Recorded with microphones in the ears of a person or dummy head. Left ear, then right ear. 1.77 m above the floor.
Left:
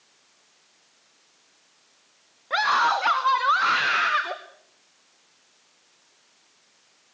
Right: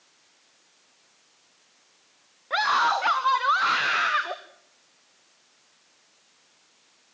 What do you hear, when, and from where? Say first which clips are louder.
2.5 s a scream: left 1 dB; centre (ahead or behind), 1.2 m